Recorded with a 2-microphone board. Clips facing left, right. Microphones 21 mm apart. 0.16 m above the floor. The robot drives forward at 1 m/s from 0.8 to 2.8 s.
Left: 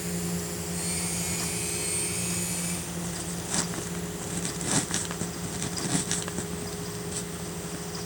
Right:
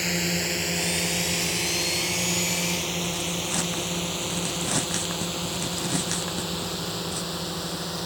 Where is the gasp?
No gasp in this recording.